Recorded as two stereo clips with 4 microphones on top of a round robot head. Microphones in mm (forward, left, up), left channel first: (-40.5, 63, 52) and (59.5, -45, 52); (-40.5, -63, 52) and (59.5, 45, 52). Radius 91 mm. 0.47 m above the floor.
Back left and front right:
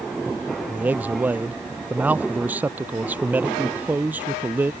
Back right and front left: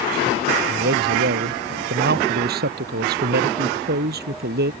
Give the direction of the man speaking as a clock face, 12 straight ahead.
11 o'clock.